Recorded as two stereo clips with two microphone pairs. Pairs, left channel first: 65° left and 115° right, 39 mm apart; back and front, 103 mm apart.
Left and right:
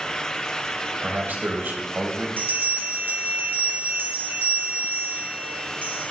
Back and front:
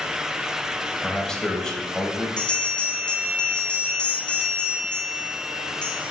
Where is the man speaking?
100° right, 3 m.